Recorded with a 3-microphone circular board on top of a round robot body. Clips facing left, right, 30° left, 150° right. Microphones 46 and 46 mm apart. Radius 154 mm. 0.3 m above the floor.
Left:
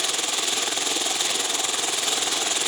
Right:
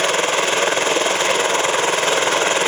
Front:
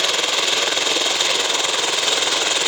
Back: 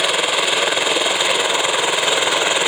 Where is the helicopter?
80° right; by 2.7 s 90° right.